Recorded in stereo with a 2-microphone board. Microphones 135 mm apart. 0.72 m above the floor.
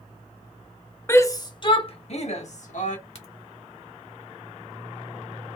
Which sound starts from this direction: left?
A crack, at 3.1 s.